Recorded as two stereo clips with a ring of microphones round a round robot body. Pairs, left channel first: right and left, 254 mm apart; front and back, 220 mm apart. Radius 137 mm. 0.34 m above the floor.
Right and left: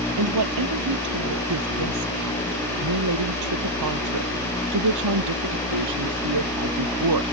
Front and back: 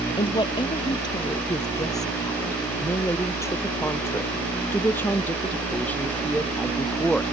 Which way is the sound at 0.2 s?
70° left.